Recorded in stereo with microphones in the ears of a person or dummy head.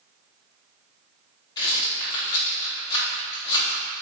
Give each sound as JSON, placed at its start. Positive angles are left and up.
{"t": 1.6, "sound": "a rattle", "side_deg": 20, "distance_m": 1.4}